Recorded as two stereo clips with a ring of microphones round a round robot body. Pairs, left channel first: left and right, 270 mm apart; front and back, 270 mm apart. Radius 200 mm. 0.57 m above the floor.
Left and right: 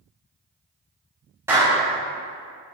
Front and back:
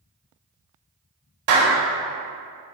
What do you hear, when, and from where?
1.5 s a clap: 175° right, 4.5 m